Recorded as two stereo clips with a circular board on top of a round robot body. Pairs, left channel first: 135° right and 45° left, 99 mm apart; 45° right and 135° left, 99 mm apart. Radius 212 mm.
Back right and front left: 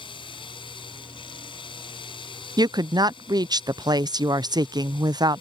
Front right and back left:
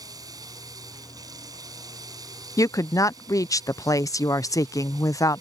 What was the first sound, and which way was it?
Running water, 170° right.